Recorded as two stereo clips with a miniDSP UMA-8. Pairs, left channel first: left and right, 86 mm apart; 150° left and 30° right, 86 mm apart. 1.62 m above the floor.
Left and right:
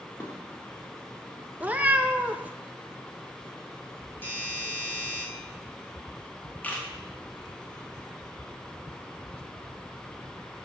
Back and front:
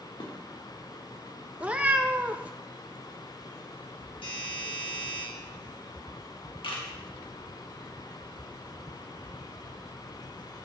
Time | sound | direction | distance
0.2 | dishes clattering | 150° left | 3 m
1.6 | a cat meowing | 60° right | 0.8 m
4.2 | a doorbell | 155° left | 5.5 m
6.6 | a camera shutter | 160° left | 2.5 m